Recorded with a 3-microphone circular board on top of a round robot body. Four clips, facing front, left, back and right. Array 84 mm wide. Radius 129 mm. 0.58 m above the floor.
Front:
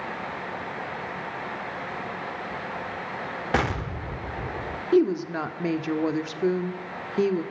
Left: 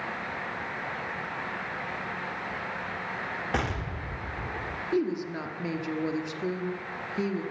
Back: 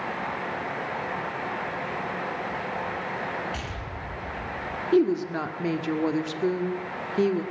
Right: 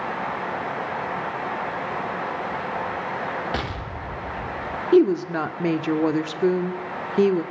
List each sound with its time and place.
3.5 s an explosion: straight ahead, 2.0 m
4.9 s a woman speaking: 85° right, 2 m